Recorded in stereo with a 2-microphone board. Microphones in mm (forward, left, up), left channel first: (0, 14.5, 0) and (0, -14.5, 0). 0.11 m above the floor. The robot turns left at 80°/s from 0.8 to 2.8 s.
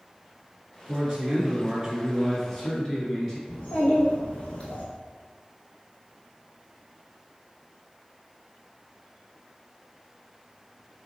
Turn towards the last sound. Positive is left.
turn(degrees=40)  # may be behind; listen again after turning